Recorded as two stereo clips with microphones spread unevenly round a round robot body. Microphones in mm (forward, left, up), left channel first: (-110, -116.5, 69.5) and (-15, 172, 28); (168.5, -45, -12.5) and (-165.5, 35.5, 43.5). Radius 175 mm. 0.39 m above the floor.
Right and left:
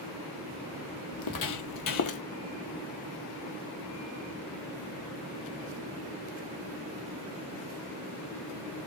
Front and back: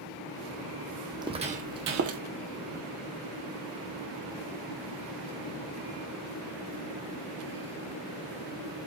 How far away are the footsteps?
About 1.3 m.